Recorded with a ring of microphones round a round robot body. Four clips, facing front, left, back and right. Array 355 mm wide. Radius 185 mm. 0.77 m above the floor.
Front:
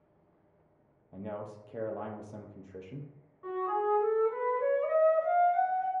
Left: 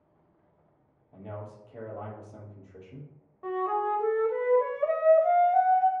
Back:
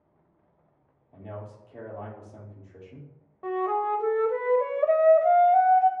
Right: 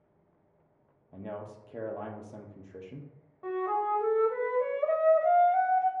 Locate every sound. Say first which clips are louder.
1.1 s a man speaking: right 1 dB, front 1 dB; 45° right, 0.8 m
3.4 s a flute: left 1 dB, back 4 dB; straight behind, 0.6 m